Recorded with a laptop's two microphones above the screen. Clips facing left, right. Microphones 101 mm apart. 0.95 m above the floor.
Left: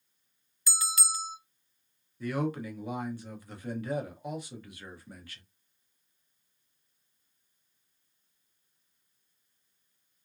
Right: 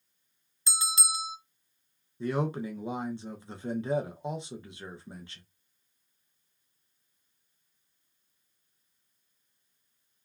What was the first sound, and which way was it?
A bell, 25° right (ahead or behind).